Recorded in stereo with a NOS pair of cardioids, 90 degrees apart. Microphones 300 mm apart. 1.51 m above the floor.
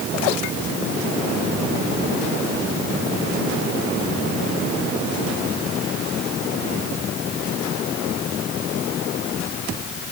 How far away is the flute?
I don't hear a flute.